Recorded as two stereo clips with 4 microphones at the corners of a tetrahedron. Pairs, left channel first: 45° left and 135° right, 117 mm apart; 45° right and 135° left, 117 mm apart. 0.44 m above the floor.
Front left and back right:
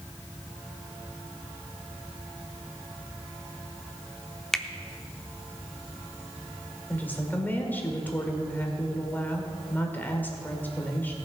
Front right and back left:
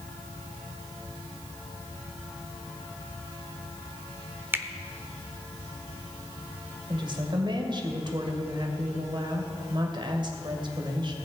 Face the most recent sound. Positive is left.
turn(degrees=115)